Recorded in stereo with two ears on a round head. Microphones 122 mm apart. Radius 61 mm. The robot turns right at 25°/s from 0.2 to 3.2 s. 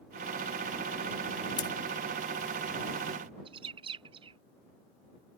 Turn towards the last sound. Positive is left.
turn(degrees=-40)  # may be behind; listen again after turning